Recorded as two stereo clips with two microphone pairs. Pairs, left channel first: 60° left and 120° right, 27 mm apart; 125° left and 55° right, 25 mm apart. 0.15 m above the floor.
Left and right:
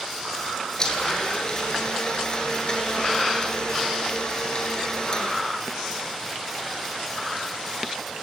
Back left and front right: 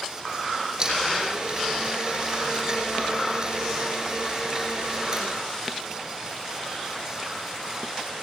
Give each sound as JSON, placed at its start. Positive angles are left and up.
{"t": 0.8, "sound": "a blender", "azimuth_deg": 5, "distance_m": 8.0}